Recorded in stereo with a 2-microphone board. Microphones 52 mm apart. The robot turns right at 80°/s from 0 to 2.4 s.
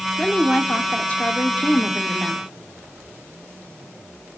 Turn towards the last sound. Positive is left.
turn(degrees=180)